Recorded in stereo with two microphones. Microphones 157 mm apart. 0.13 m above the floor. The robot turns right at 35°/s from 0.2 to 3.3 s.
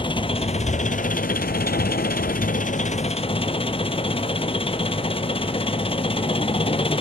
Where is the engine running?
35° left, 0.7 m; by 7.0 s 140° left, 0.7 m.